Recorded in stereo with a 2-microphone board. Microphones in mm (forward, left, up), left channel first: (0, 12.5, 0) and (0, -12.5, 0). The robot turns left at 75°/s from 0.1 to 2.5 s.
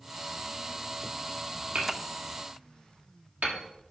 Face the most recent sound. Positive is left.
turn(degrees=-65)  # may be behind; listen again after turning